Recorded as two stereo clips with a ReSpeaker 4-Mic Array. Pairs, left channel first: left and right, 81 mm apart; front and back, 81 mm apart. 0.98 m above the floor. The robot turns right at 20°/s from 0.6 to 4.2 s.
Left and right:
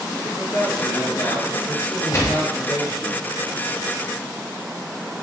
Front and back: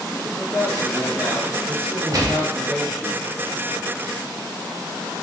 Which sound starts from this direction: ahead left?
A man speaking, at 0.1 s.